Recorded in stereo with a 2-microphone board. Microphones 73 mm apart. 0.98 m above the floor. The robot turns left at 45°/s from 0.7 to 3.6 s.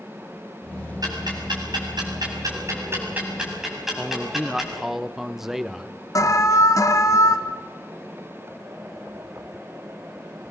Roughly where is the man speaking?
Centre.